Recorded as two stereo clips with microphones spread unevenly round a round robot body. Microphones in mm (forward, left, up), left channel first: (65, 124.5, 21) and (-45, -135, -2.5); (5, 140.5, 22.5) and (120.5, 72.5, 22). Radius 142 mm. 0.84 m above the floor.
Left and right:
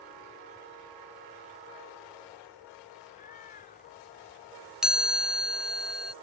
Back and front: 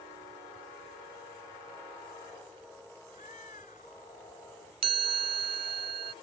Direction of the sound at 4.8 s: 20° right.